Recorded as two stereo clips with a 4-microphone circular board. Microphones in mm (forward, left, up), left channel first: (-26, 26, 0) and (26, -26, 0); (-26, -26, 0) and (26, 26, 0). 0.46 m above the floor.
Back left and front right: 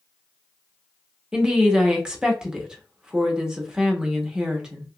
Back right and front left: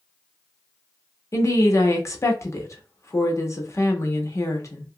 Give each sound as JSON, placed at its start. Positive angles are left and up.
{"t": 1.3, "sound": "a woman speaking", "azimuth_deg": -120, "distance_m": 0.9}